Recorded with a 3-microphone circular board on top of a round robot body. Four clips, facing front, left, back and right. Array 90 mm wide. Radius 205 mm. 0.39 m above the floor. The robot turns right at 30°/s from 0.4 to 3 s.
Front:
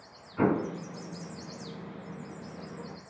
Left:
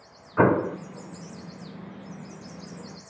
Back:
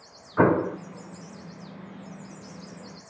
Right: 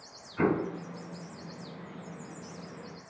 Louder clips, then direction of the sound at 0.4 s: Left 7 dB, back 6 dB; 140° left.